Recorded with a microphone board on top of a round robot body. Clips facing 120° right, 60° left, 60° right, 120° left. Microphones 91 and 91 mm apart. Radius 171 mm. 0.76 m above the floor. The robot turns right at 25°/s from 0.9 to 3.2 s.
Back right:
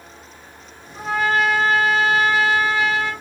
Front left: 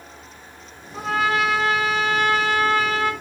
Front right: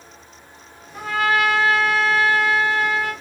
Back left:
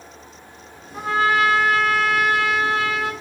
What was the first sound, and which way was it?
A trumpet, 50° left.